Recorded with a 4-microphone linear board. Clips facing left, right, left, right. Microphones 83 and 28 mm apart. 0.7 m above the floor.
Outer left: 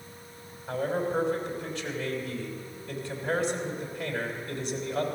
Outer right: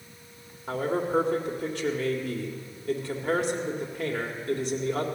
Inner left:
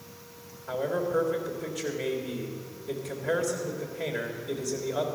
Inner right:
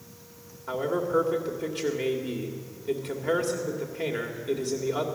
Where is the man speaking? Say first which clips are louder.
Outer right 2 dB, inner right 2 dB; 65° right (ahead or behind), 2 m.